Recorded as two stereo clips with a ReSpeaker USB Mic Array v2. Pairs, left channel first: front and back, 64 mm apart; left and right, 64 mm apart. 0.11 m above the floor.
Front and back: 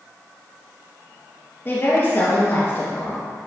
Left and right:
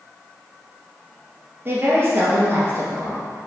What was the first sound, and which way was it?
A woman speaking, 45° right.